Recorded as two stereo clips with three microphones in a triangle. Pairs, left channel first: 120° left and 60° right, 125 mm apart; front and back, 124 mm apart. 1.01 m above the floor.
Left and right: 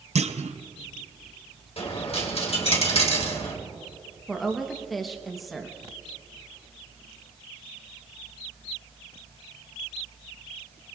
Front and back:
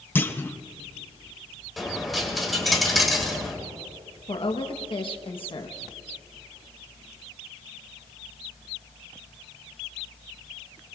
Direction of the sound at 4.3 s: 30° left.